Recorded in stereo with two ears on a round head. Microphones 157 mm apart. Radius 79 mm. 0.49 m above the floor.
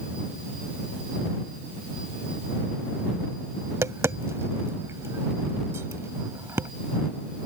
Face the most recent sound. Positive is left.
turn(degrees=-15)  # may be behind; listen again after turning